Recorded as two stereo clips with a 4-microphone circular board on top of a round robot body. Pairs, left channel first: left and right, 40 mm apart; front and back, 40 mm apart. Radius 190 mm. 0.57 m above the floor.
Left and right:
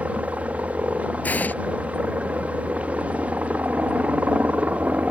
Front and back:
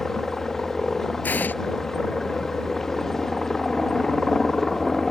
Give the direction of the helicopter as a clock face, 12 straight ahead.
3 o'clock.